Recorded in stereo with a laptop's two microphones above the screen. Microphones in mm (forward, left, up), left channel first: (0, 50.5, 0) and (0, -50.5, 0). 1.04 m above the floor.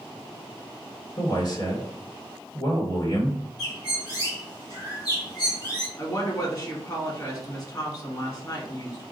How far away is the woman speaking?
About 2.0 m.